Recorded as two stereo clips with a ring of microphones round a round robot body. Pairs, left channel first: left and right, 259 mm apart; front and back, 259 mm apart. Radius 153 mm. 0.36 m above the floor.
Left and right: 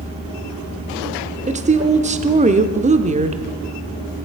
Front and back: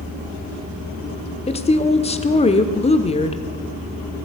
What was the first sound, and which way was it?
A woman speaking, 50° right.